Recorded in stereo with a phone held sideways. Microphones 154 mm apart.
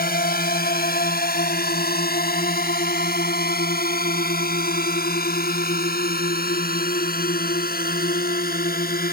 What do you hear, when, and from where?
0.0 s a drone: 80° left; by 9.1 s 75° left (ahead or behind)